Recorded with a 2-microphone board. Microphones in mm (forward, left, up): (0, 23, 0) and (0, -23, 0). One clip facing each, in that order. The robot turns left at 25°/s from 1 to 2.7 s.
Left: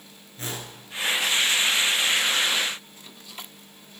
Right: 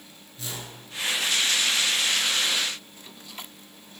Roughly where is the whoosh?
Left.